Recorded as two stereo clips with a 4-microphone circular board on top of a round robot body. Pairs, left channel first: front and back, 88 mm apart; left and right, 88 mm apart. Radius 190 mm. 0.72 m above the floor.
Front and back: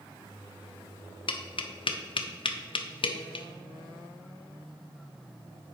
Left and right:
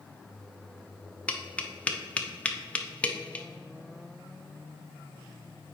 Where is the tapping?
15° left, 0.6 m.